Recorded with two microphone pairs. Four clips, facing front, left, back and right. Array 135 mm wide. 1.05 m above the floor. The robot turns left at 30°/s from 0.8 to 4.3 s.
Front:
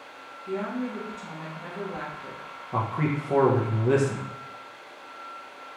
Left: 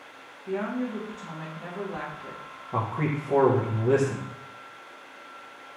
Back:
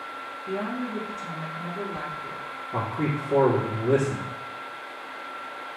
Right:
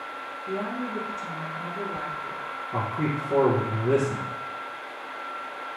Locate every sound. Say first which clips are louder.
0.5 s a woman speaking: left 2 dB, even; 105° left, 1.8 m; by 2.4 s 55° left, 1.8 m
2.7 s a man speaking: even, front 1 dB; 45° left, 1.1 m; by 4.2 s 5° right, 1.1 m